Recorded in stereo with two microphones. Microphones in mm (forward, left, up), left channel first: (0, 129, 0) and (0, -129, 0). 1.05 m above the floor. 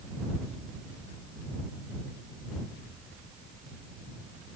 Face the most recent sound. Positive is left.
No sound to turn to.